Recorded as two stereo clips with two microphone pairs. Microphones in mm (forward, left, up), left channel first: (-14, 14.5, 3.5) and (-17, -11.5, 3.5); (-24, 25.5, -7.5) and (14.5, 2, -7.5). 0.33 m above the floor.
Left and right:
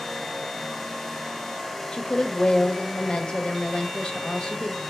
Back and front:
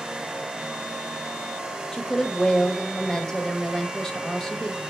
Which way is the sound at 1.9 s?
80° left.